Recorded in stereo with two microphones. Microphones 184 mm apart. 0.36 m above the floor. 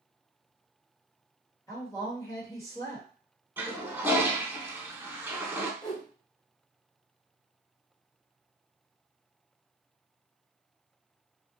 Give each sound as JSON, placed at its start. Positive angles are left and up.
{"t": 1.7, "sound": "a woman speaking", "side_deg": 15, "distance_m": 1.3}
{"t": 3.6, "sound": "a toilet flushing", "side_deg": -10, "distance_m": 0.6}
{"t": 5.8, "sound": "a whoosh", "side_deg": 25, "distance_m": 1.7}